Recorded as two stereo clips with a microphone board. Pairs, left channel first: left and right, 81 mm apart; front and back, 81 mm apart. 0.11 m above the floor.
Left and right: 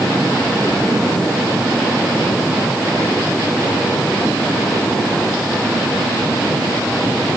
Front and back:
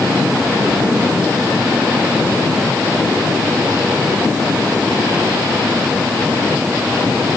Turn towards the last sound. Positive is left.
No sound to turn to.